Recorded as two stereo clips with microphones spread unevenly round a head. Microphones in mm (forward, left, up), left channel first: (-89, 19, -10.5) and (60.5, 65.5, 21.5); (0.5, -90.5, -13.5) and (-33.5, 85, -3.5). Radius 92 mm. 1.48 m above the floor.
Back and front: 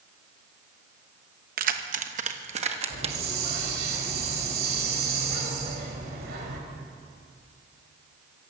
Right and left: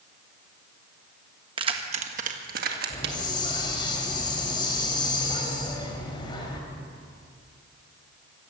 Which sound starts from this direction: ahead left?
Keys jangling, at 1.6 s.